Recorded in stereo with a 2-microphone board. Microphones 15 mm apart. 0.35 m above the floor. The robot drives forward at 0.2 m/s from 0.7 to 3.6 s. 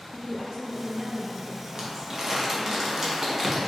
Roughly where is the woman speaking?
Right.